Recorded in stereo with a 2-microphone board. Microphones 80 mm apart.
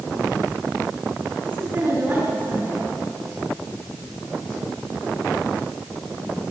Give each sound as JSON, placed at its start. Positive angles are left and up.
{"t": 1.4, "sound": "a woman speaking", "side_deg": -25, "distance_m": 8.0}